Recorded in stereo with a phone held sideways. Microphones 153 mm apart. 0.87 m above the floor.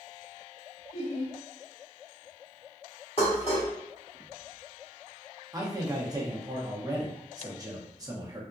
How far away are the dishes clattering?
About 1.5 m.